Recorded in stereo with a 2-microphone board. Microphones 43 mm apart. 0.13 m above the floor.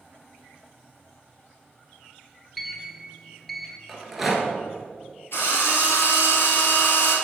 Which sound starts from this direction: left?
A drill, at 5.3 s.